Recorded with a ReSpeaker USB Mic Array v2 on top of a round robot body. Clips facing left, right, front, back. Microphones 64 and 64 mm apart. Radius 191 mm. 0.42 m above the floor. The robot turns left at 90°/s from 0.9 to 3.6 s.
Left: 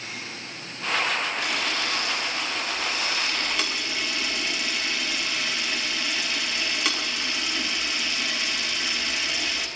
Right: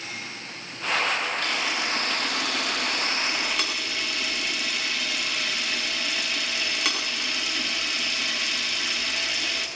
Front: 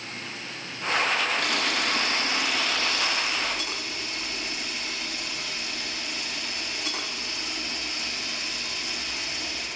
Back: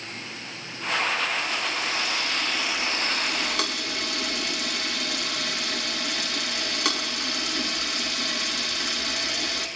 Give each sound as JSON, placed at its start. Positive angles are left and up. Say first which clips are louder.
{"t": 1.4, "sound": "a camera shutter", "louder": "even, front 2 dB", "azimuth_deg": 20, "distance_m": 8.5}